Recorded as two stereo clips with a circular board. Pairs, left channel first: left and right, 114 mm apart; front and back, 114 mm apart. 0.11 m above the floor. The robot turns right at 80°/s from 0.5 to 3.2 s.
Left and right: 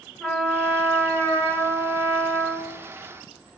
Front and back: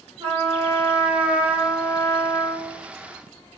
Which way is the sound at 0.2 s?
Straight behind.